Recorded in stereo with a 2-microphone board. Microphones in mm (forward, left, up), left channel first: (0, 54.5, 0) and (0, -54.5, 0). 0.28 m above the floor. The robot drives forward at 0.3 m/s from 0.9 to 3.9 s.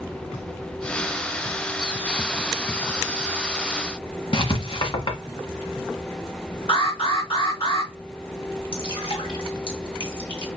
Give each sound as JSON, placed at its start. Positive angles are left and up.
{"t": 4.3, "sound": "writing", "side_deg": 55, "distance_m": 1.3}
{"t": 6.7, "sound": "an alarm", "side_deg": 65, "distance_m": 3.5}
{"t": 8.7, "sound": "dripping", "side_deg": 50, "distance_m": 1.9}